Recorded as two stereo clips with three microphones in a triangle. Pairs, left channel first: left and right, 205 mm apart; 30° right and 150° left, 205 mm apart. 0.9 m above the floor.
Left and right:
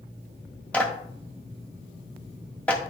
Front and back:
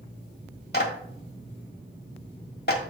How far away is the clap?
About 1.5 m.